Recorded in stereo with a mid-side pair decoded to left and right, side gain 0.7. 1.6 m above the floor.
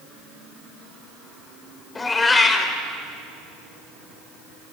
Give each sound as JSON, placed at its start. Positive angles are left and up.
{"t": 1.9, "sound": "a cat meowing", "azimuth_deg": 25, "distance_m": 3.0}